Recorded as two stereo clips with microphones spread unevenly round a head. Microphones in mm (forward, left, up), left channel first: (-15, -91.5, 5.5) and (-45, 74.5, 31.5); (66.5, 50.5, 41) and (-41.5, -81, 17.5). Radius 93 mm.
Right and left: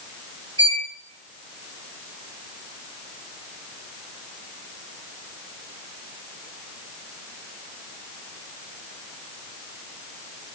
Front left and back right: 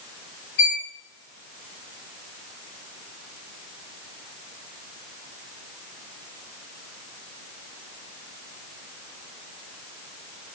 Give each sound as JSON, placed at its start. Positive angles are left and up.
{"t": 0.6, "sound": "a violin", "azimuth_deg": 35, "distance_m": 6.5}